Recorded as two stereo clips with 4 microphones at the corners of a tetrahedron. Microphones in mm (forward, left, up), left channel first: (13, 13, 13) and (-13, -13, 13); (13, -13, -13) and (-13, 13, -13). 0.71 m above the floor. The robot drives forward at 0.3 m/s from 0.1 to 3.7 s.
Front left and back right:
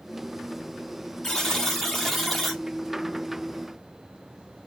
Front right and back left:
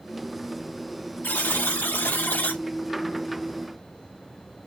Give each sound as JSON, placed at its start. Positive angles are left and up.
{"t": 1.2, "sound": "a buzzer", "azimuth_deg": -30, "distance_m": 1.3}